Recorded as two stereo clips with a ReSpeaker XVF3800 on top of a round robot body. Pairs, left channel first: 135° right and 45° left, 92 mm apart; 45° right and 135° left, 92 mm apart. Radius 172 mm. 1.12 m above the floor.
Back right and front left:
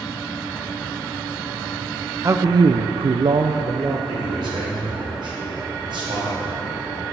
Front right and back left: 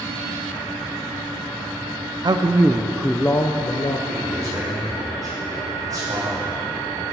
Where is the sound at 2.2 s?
100° left, 0.5 m; by 4.0 s 5° right, 0.7 m.